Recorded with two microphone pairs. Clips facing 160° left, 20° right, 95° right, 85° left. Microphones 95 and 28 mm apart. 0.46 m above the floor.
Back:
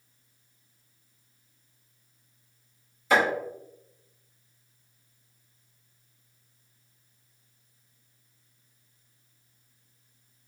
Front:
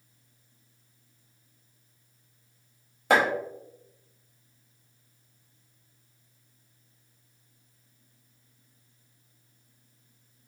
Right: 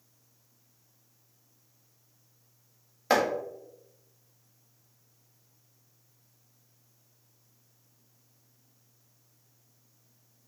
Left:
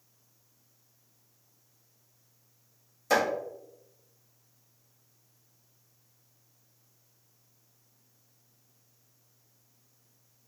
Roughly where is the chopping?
Ahead right.